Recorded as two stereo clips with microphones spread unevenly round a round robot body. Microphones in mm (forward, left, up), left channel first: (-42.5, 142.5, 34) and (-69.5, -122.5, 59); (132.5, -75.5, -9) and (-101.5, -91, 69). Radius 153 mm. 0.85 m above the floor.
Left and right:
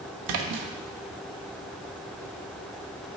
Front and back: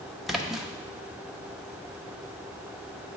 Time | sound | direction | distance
0.3 | a splash | 90° right | 0.7 m